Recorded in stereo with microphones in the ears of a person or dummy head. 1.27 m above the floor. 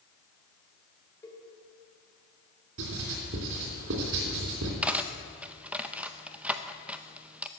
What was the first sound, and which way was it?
A cowbell, 15° left (ahead or behind).